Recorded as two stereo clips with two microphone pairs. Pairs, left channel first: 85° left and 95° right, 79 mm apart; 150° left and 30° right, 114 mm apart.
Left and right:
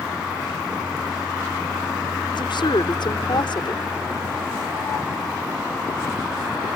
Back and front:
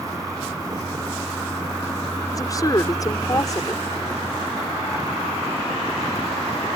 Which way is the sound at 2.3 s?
95° left.